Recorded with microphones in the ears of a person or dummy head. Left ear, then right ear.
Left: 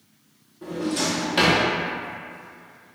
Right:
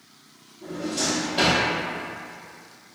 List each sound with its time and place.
0.6 s a drawer: 40° left (ahead or behind), 0.8 m